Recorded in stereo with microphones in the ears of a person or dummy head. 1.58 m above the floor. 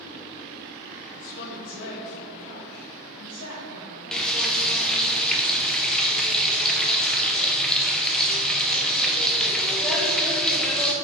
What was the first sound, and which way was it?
A woman speaking, 45° left (ahead or behind).